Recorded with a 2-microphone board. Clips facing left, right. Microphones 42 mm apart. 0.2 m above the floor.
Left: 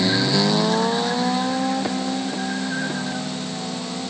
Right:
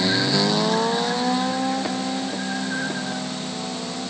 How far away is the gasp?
No gasp in this recording.